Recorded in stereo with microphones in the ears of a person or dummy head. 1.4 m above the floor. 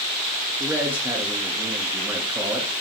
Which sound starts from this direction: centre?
A man speaking, at 0.6 s.